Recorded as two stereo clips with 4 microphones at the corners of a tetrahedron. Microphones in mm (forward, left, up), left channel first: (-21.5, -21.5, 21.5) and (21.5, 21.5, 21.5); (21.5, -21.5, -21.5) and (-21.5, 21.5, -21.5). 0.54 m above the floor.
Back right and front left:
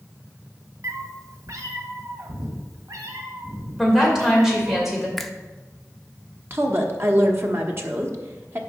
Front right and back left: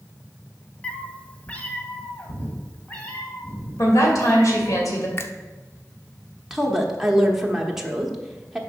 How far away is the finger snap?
About 0.5 m.